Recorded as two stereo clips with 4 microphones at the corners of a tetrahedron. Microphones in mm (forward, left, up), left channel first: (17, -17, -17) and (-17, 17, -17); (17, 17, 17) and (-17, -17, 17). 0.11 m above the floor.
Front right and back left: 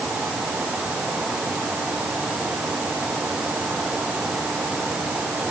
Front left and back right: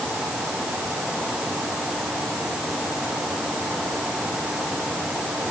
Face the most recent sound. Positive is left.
No sound to turn to.